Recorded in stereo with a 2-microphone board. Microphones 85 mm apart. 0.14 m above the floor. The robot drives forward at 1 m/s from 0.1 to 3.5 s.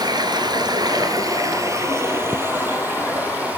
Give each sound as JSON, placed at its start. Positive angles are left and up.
{"t": 0.0, "sound": "running water", "side_deg": -55, "distance_m": 1.4}